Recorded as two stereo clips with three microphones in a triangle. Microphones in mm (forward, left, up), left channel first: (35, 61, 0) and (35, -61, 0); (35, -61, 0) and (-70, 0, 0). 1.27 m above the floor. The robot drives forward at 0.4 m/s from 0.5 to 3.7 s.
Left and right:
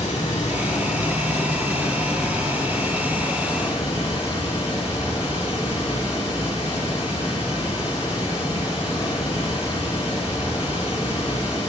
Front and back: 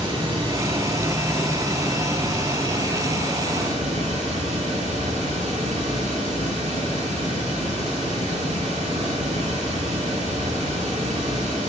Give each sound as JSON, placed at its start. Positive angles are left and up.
{"t": 0.0, "sound": "running water", "azimuth_deg": 110, "distance_m": 2.5}